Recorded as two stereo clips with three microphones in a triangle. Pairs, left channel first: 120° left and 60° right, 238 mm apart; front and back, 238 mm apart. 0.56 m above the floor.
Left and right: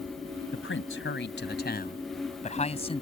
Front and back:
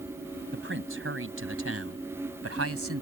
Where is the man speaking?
145° left; by 3.0 s 175° right.